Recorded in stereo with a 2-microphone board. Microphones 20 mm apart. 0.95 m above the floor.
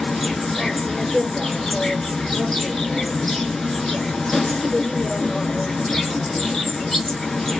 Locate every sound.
0.0 s an insect: 25° left (ahead or behind), 1.0 m